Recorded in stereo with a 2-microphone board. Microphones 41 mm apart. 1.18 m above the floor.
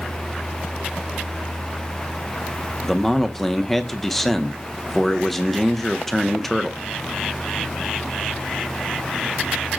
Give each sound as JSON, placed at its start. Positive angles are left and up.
{"t": 2.8, "sound": "a man speaking", "side_deg": 5, "distance_m": 0.5}